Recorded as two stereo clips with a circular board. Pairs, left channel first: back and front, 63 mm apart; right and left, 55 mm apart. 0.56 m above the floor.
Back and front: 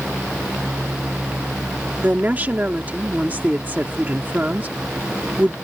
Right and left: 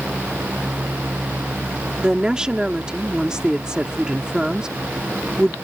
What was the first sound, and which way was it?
A woman speaking, 30° left.